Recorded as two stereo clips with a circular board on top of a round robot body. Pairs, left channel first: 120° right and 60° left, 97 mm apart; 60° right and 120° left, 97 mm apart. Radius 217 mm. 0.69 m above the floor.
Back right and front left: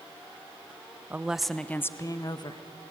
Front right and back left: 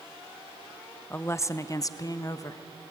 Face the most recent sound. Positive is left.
turn(degrees=-105)